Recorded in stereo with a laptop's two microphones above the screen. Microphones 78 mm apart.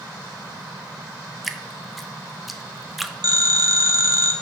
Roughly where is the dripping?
Centre.